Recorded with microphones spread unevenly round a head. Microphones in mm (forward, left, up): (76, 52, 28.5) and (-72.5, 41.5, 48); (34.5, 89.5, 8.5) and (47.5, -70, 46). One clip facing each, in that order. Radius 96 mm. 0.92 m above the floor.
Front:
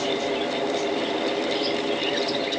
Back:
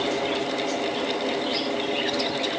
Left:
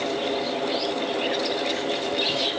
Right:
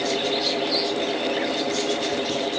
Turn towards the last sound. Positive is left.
No sound to turn to.